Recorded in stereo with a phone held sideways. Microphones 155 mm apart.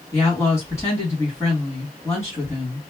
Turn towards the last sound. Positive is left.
turn(degrees=20)  # may be behind; listen again after turning